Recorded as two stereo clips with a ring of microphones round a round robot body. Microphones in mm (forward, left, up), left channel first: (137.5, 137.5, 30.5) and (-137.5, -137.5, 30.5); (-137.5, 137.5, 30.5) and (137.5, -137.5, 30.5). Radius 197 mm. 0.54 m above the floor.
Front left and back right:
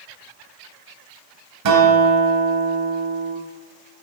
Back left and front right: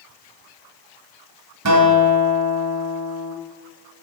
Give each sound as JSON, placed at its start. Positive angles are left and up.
{"t": 1.6, "sound": "a guitar", "azimuth_deg": -95, "distance_m": 1.5}